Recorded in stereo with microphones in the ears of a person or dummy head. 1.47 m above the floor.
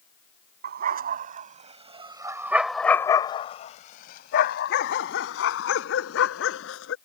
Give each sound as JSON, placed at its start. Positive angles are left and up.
{"t": 0.6, "sound": "a dog barking", "side_deg": -55}